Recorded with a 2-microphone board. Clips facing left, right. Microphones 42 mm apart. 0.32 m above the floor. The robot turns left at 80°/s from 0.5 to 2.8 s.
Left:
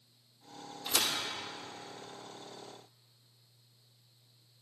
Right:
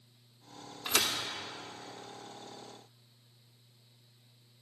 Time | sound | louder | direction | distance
0.8 | a thud | right 2 dB | 55° right (ahead or behind) | 1.0 m